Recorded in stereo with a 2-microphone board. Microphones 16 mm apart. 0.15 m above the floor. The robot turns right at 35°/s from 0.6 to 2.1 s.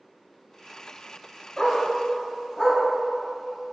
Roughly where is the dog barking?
Left.